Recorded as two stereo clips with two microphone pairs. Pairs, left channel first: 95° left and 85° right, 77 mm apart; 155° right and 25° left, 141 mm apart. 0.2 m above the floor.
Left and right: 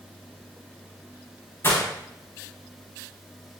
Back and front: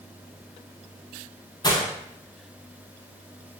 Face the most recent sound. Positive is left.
turn(degrees=150)